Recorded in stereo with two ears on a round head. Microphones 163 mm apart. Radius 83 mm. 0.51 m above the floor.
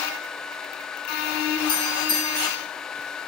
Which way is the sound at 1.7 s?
25° left (ahead or behind).